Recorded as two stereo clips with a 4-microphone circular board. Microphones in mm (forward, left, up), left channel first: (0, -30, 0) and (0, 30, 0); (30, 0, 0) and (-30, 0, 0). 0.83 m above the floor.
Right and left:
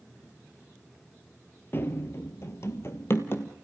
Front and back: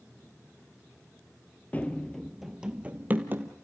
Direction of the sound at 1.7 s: 55° right.